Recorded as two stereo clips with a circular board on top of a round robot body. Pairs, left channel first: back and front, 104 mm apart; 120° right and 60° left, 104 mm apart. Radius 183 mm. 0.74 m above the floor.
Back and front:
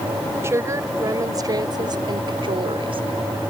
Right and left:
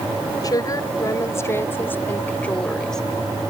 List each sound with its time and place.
0.4 s a woman speaking: 65° right; by 3.0 s 35° right